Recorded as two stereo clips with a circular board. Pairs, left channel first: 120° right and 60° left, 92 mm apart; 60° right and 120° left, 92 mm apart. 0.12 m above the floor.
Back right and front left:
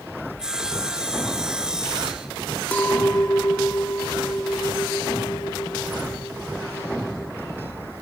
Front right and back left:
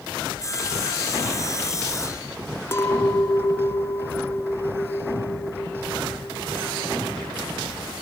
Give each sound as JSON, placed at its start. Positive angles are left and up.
{"t": 0.4, "sound": "sawing", "azimuth_deg": -20, "distance_m": 2.5}
{"t": 2.7, "sound": "a clink", "azimuth_deg": -65, "distance_m": 0.7}